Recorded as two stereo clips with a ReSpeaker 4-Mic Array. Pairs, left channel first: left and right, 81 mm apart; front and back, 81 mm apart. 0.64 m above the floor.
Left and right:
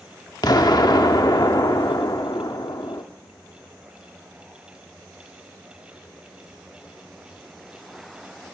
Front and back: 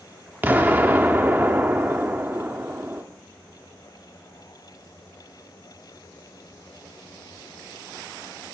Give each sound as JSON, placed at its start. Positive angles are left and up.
{"t": 0.4, "sound": "an explosion", "azimuth_deg": 115, "distance_m": 0.8}